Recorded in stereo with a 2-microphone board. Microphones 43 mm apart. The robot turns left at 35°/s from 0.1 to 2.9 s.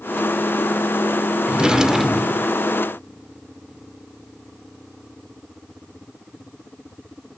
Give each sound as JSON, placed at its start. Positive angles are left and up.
{"t": 1.5, "sound": "a drawer", "azimuth_deg": -150, "distance_m": 0.7}